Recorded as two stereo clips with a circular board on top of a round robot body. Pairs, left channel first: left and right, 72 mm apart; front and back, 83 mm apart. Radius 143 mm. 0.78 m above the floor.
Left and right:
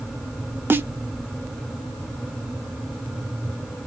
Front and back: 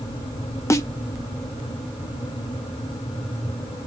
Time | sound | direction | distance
0.7 | a snare drum | 40° right | 0.7 m